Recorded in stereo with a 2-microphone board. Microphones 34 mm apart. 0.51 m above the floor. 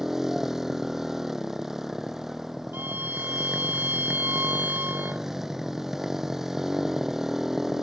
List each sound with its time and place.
0.0 s a motorcycle: 15° right (ahead or behind)
2.7 s a violin: 80° right